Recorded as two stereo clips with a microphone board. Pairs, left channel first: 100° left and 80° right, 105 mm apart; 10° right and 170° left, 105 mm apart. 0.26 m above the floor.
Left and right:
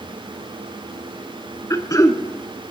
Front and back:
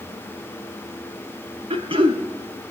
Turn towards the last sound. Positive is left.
turn(degrees=150)